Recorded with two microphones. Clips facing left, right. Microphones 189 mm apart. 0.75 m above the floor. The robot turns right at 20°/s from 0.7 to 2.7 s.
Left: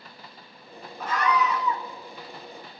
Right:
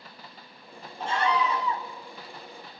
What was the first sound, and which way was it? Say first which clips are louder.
A scream: left 1 dB; 30° right (ahead or behind).